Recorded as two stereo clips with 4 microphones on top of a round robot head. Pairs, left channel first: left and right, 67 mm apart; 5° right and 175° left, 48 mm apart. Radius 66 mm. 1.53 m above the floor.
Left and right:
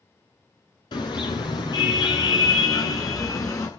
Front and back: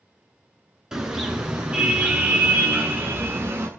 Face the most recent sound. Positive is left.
turn(degrees=135)